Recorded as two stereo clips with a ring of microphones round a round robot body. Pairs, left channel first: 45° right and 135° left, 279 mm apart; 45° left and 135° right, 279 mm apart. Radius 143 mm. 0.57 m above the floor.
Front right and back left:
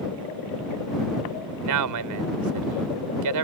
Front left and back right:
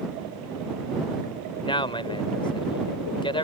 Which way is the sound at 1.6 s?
120° left.